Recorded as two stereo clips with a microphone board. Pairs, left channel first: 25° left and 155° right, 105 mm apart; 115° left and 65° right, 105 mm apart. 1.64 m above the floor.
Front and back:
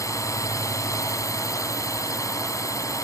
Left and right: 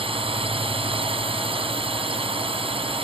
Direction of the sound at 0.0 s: 35° right.